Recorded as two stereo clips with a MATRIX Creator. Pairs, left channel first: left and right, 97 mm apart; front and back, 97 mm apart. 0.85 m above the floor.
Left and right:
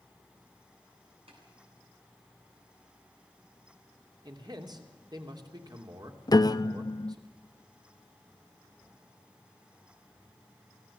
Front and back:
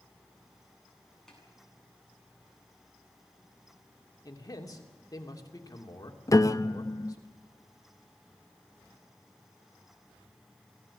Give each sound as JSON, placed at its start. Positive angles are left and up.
{"t": 1.3, "sound": "tapping", "azimuth_deg": -85, "distance_m": 9.0}
{"t": 4.2, "sound": "a man speaking", "azimuth_deg": -50, "distance_m": 3.0}
{"t": 6.3, "sound": "a piano", "azimuth_deg": 50, "distance_m": 0.6}